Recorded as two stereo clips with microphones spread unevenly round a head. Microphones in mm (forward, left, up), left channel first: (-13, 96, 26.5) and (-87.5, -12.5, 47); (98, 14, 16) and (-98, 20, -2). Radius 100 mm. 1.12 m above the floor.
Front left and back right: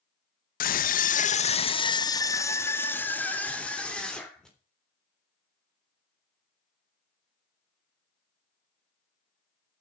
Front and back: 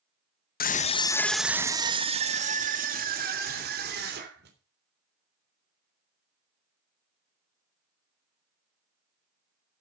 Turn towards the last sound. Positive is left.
turn(degrees=140)